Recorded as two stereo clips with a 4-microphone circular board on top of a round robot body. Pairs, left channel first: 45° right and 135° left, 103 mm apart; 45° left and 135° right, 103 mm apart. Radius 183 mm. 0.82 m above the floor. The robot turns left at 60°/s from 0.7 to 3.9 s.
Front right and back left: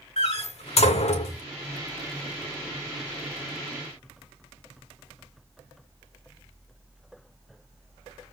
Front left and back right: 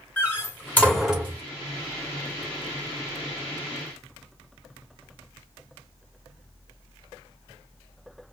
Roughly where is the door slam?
Ahead right.